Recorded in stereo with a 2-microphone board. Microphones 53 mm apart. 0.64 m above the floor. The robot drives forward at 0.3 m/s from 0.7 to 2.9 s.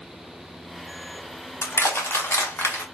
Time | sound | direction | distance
1.6 | crushing | 55° left (ahead or behind) | 1.1 m